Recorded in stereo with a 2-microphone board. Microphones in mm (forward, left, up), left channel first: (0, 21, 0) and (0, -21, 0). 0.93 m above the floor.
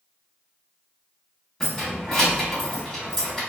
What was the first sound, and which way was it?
Keys jangling, 15° left (ahead or behind).